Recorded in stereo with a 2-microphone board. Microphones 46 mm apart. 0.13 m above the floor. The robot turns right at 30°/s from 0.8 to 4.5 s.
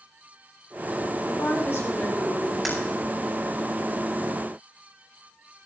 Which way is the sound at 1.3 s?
105° left.